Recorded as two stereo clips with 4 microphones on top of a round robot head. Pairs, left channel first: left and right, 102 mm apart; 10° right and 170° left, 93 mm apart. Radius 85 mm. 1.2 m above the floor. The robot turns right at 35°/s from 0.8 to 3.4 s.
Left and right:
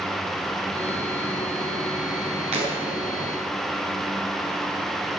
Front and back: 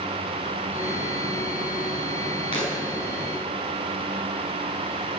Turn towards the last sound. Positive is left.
turn(degrees=-20)